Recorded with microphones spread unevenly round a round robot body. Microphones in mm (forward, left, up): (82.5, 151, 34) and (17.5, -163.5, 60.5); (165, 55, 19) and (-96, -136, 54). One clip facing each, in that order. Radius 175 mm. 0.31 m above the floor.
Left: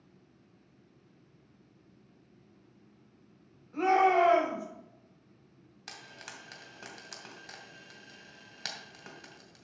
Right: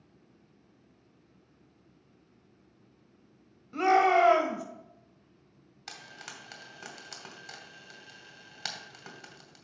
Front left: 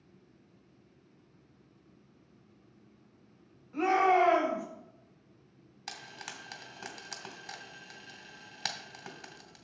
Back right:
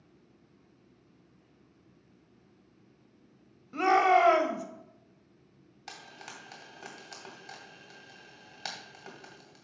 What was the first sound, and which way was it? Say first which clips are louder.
A shout: right 1 dB, back right 1 dB; 135° right.